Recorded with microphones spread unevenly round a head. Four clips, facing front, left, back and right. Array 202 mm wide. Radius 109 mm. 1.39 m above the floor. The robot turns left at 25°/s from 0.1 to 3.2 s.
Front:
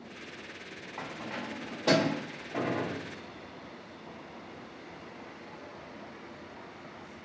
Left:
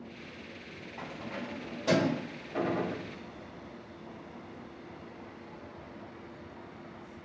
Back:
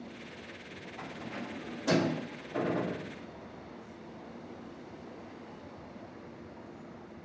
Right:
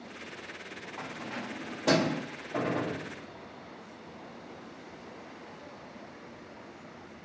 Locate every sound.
1.0 s keys jangling: 15° right, 1.7 m; by 2.2 s 45° right, 1.7 m
2.5 s a gunshot: 75° right, 1.2 m; by 3.1 s 90° right, 1.2 m